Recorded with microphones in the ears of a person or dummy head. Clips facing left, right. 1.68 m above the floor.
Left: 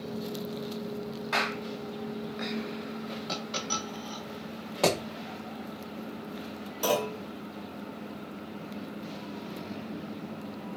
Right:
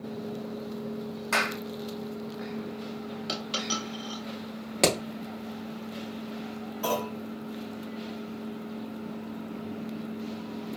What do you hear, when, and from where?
1.3 s a clap: 55° right (ahead or behind), 0.9 m
3.3 s a dropped coin: 35° right (ahead or behind), 1.8 m
4.8 s hammering: 35° right (ahead or behind), 0.9 m
6.8 s a clunk: 60° left (ahead or behind), 1.6 m